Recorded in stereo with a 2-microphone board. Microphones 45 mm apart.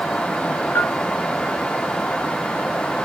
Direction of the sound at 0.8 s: 65° left (ahead or behind).